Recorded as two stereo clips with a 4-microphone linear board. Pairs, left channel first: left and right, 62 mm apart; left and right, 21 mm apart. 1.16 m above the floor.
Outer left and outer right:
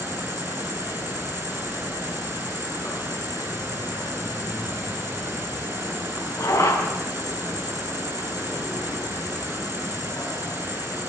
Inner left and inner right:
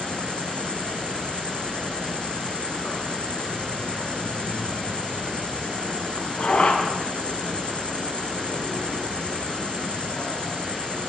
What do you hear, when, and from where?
0.0 s an insect: 80° left, 7 m